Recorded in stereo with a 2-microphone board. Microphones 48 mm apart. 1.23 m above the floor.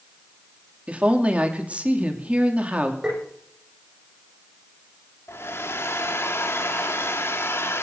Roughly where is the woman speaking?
Right.